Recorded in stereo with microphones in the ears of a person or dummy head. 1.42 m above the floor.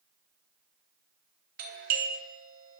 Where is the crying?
No crying in this recording.